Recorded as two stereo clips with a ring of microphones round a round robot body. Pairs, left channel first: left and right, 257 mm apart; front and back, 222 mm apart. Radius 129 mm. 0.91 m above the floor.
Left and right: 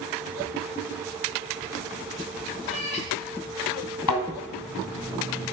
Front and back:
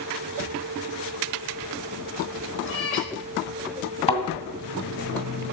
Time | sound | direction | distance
2.6 | a cat meowing | 25° left | 1.9 m
4.1 | a thud | 65° left | 1.9 m